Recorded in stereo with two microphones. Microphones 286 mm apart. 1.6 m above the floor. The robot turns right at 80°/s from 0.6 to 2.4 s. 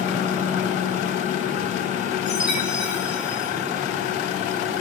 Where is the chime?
15° right (ahead or behind), 8 m; by 3.5 s 5° right (ahead or behind), 8 m.